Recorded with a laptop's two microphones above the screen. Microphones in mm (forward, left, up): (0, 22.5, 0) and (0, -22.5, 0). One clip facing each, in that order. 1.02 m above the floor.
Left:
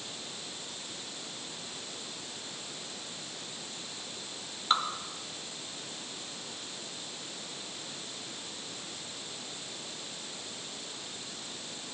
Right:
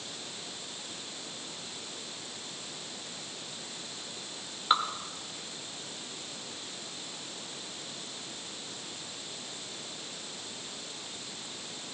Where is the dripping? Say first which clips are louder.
Right 2 dB; 15° right (ahead or behind), 1.6 m.